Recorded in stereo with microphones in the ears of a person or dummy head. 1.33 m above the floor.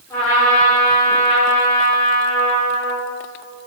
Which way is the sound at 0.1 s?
5° left (ahead or behind).